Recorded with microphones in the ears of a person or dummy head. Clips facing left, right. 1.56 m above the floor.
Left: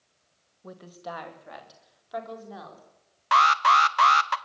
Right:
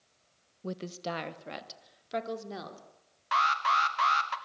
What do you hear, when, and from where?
0.6 s a woman speaking: 35° right (ahead or behind), 1.4 m
3.3 s an alarm: 65° left (ahead or behind), 1.2 m